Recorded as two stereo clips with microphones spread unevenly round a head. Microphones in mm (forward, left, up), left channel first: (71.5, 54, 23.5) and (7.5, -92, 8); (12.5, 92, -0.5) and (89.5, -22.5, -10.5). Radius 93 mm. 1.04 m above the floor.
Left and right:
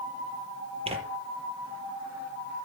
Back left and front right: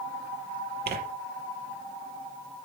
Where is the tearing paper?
60° right, 5 m.